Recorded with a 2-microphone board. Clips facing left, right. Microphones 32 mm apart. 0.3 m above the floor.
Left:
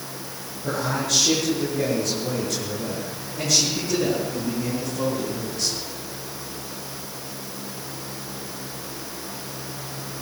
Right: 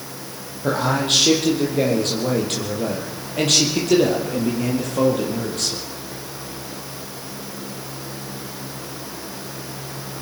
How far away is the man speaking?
About 8 m.